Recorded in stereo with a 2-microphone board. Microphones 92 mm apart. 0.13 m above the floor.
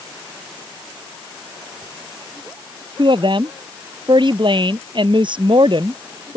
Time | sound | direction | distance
3.0 | a woman speaking | 55° right (ahead or behind) | ?